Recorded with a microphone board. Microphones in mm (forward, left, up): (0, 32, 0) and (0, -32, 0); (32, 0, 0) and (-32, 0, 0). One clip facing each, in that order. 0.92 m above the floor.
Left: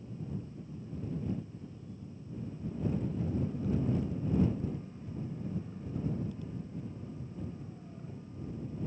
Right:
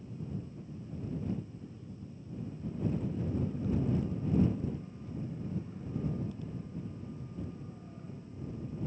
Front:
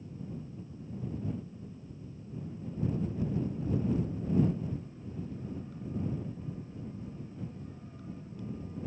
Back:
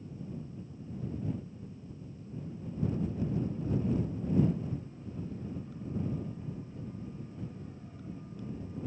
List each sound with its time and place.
Only background noise.